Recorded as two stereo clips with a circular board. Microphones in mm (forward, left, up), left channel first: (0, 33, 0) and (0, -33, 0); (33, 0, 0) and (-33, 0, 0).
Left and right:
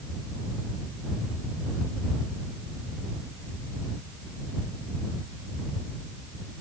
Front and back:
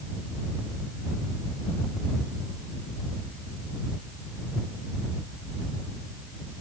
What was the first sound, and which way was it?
Only background noise.